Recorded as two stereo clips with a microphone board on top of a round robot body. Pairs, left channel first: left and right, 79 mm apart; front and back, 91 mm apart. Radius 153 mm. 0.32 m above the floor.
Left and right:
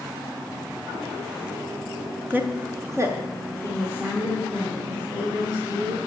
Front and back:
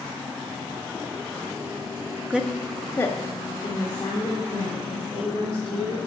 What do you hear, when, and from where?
2.3 s a woman speaking: 125° right, 1.1 m; by 6.0 s 30° right, 4 m